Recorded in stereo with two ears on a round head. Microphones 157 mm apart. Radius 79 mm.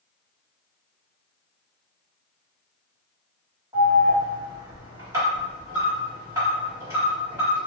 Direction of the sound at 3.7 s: 15° right (ahead or behind).